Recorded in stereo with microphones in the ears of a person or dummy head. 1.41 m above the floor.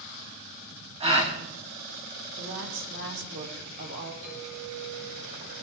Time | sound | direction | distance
1.0 | a gasp | 30° right (ahead or behind) | 2.5 m
2.4 | a woman speaking | 60° right (ahead or behind) | 3.5 m
4.2 | a clink | 80° right | 6 m